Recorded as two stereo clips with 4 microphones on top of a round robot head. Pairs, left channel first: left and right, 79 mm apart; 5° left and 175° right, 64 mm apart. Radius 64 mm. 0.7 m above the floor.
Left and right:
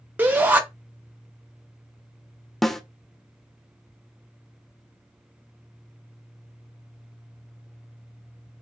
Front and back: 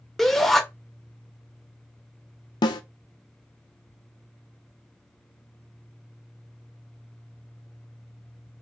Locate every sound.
0.2 s a shout: 75° right, 1.0 m
2.6 s a snare drum: 5° left, 0.7 m